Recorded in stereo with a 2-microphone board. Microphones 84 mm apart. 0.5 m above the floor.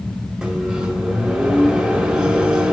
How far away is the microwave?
About 1.8 m.